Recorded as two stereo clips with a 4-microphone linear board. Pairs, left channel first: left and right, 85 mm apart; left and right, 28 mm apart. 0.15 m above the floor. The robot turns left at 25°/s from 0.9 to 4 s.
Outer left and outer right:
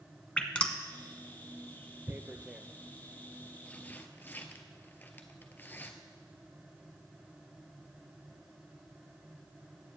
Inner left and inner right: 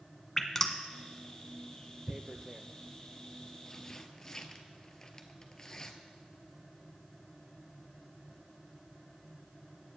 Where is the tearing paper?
20° right (ahead or behind), 0.9 m; by 5.9 s 25° left (ahead or behind), 0.9 m.